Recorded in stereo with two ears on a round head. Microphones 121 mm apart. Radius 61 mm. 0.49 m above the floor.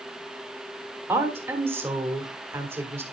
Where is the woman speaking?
20° right (ahead or behind), 1.6 m.